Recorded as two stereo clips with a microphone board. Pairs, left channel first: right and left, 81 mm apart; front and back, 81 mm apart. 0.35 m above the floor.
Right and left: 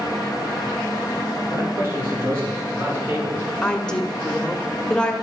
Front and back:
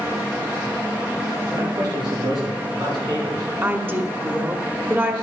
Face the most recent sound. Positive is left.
turn(degrees=-155)